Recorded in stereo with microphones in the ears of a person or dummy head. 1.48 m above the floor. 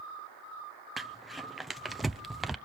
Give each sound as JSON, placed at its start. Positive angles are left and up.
{"t": 1.0, "sound": "crumpling", "side_deg": 0, "distance_m": 0.5}